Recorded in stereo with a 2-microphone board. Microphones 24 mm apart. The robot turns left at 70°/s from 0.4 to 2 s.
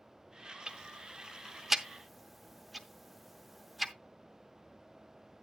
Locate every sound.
0.7 s ticking: 35° right (ahead or behind), 0.7 m; by 3.9 s centre (ahead or behind), 0.7 m